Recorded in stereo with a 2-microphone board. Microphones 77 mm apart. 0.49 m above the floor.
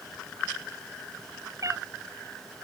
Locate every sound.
1.6 s a cat meowing: 45° right (ahead or behind)